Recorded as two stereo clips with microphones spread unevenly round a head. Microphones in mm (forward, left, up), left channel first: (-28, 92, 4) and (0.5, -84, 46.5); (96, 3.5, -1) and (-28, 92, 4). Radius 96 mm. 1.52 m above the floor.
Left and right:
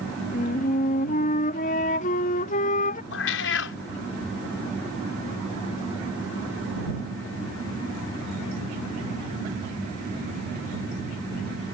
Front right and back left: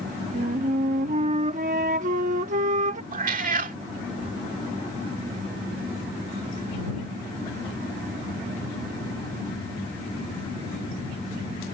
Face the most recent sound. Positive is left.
turn(degrees=120)